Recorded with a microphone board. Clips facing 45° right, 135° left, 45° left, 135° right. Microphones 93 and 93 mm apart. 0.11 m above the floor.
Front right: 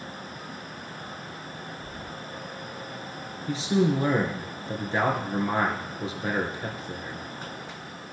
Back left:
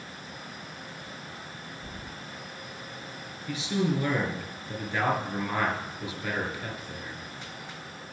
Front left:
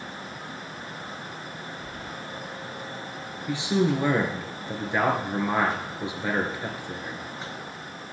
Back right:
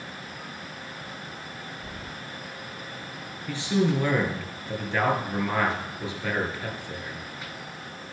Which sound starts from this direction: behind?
Keys jangling, at 1.8 s.